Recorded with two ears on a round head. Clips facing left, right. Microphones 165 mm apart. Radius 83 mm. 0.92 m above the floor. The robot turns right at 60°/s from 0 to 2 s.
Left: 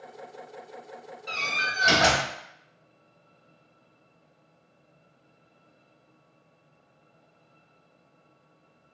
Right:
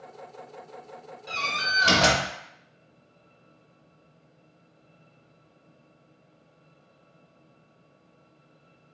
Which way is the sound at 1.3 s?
170° right.